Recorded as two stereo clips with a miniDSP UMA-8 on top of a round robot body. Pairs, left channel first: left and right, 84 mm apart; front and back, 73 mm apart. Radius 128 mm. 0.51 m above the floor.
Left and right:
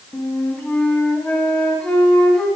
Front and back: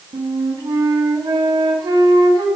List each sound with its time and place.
0.1 s a flute: 170° left, 2 m